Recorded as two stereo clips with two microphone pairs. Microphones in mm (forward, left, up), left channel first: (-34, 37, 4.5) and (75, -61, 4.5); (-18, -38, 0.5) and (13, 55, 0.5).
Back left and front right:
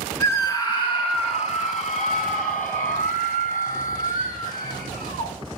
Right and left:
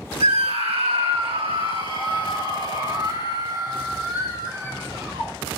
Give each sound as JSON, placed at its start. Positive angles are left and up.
{"t": 0.2, "sound": "a scream", "azimuth_deg": 65, "distance_m": 1.8}